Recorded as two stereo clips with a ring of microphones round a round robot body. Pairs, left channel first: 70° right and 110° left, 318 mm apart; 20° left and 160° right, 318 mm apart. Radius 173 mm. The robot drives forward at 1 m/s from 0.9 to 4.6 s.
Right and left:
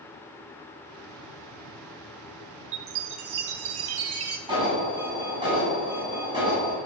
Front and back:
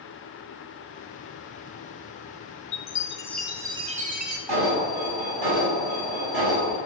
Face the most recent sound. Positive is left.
turn(degrees=-170)